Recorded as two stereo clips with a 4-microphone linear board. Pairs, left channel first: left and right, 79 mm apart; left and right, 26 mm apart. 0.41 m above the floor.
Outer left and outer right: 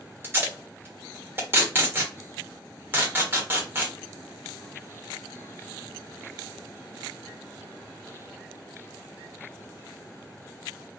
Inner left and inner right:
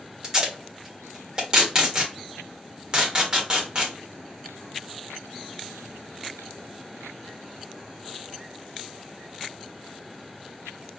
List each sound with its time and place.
0.2 s tape being pulled: 30° right (ahead or behind), 1.2 m